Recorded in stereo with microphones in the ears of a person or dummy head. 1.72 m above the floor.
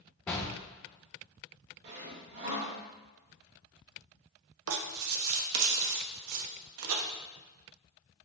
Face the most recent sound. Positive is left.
turn(degrees=-80)